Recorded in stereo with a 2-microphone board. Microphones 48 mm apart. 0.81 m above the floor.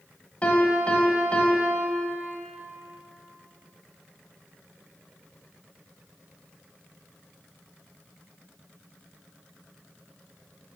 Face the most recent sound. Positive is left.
turn(degrees=25)  # may be behind; listen again after turning